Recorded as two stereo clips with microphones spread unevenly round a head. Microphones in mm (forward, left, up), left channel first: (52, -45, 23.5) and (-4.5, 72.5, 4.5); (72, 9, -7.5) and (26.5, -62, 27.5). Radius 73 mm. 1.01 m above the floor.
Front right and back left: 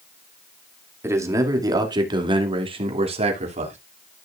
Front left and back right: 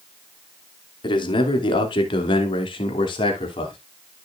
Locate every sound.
1.0 s a man speaking: 50° left, 2.5 m; by 3.8 s 85° left, 3 m